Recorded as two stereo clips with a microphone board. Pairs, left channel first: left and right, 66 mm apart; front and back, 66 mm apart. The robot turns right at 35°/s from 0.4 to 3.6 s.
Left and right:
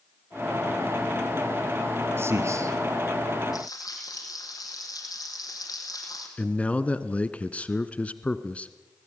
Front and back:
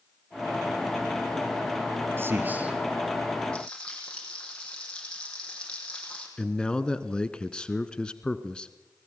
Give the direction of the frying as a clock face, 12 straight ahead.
10 o'clock.